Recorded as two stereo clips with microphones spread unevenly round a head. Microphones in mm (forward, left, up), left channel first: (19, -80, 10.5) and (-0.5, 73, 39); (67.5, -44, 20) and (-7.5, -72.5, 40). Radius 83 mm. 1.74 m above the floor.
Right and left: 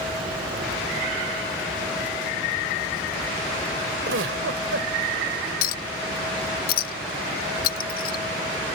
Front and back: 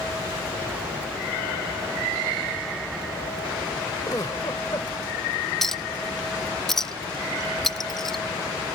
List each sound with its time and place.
4.1 s a giggle: 90° left
5.6 s a clink: 80° right